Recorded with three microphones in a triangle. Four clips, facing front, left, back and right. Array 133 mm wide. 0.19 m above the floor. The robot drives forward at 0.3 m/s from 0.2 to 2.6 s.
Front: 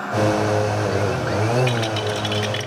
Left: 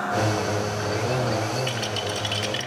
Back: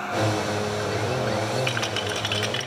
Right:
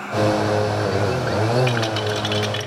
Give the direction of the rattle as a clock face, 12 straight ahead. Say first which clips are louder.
Right 6 dB, front 5 dB; 4 o'clock.